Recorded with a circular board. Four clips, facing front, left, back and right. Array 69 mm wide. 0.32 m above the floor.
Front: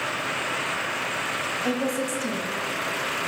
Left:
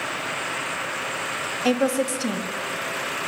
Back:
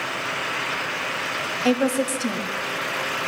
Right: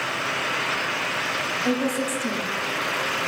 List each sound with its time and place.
1.6 s a woman speaking: 130° left, 1.3 m